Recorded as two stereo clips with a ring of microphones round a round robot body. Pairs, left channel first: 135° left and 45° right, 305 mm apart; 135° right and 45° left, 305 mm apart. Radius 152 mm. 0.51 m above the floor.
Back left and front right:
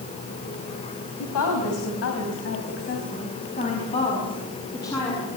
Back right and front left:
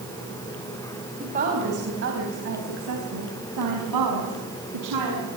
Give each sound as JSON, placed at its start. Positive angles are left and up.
{"t": 1.2, "sound": "a woman speaking", "azimuth_deg": 110, "distance_m": 4.0}